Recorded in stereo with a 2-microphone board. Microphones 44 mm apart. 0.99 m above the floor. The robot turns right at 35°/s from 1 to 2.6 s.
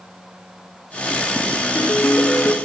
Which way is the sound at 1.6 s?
105° left.